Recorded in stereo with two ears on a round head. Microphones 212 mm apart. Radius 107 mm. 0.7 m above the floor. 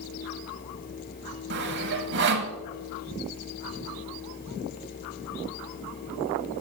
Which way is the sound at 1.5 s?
50° right (ahead or behind).